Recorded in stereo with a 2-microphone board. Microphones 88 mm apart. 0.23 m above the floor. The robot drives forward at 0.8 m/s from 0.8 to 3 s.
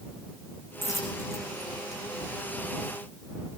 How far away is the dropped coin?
About 6 m.